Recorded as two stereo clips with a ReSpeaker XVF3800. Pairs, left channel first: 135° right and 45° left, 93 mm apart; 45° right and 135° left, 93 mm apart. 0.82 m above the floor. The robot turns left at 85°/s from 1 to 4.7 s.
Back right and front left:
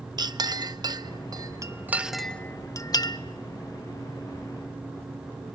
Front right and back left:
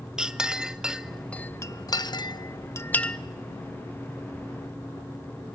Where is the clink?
55° left, 0.5 m; by 3.2 s 130° right, 0.5 m.